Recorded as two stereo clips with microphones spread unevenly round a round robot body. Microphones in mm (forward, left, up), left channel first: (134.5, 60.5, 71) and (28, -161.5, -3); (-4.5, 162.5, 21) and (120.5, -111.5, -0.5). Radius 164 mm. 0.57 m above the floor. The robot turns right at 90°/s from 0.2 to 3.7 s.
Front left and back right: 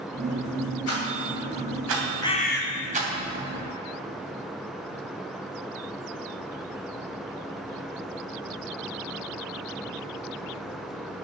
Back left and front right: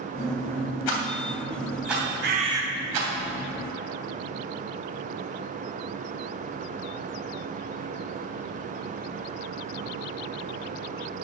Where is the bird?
20° right, 1.6 m; by 2.6 s 15° left, 1.6 m.